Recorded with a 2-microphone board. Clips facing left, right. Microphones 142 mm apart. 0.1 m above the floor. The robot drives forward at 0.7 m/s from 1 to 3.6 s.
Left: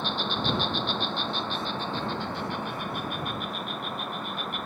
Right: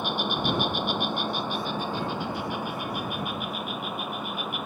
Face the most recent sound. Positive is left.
turn(degrees=-5)  # may be behind; listen again after turning